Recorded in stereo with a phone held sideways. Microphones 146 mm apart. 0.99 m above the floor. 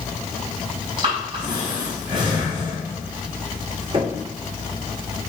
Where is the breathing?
30° right (ahead or behind), 5 m.